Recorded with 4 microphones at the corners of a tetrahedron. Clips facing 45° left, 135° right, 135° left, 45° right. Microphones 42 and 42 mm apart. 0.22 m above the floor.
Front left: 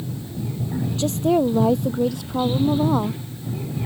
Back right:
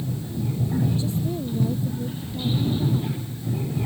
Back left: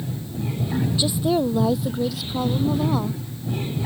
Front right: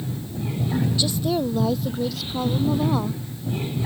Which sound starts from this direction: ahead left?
A woman speaking, at 1.0 s.